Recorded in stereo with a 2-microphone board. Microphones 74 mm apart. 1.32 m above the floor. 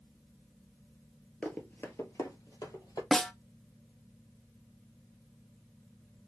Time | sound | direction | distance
1.4 | running footsteps | 20° left (ahead or behind) | 1.3 m
3.1 | a snare drum | 5° left (ahead or behind) | 0.6 m